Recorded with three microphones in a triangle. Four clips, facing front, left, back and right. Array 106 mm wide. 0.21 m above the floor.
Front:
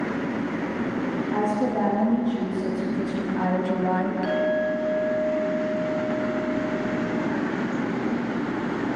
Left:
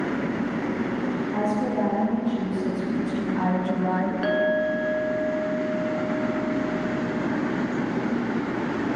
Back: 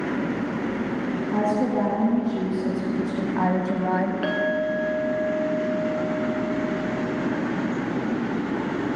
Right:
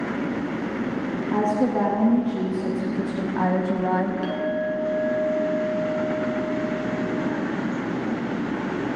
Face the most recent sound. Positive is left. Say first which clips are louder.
# left 3 dB, front 1 dB
turn(degrees=140)